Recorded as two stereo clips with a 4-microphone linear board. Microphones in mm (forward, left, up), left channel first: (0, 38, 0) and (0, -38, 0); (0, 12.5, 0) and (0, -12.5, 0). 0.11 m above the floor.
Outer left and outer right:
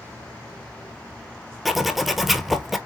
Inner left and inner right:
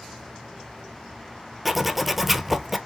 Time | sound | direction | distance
1.6 | a zipper | centre (ahead or behind) | 0.6 m